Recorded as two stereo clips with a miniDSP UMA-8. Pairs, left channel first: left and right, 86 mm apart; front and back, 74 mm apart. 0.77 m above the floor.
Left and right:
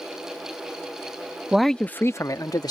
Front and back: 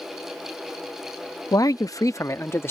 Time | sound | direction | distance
1.5 | a man speaking | 10° right | ?